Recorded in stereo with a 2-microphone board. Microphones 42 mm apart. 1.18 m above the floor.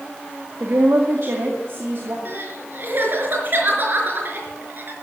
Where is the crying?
50° right (ahead or behind), 4.5 m.